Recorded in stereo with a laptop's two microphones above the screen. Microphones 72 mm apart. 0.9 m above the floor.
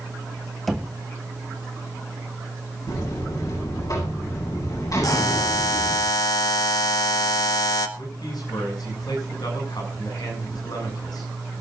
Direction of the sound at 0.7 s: Centre (ahead or behind).